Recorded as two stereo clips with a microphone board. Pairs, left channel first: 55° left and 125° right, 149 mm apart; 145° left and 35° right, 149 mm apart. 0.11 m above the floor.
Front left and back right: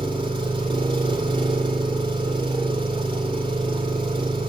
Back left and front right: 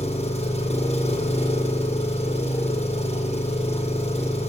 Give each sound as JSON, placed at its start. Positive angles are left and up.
{"t": 0.0, "sound": "an engine running", "azimuth_deg": 180, "distance_m": 2.0}